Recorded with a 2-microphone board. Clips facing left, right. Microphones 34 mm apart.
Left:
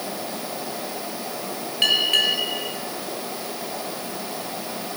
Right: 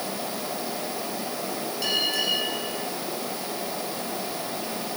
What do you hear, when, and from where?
1.8 s a bell: 65° left (ahead or behind), 4.5 m